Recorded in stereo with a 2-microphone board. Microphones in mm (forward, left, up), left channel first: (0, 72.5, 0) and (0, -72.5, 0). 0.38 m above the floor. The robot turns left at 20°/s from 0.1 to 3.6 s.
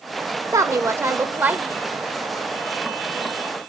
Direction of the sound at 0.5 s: 20° right (ahead or behind).